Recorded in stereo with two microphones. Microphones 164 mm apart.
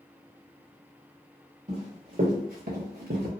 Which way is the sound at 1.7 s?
50° right (ahead or behind).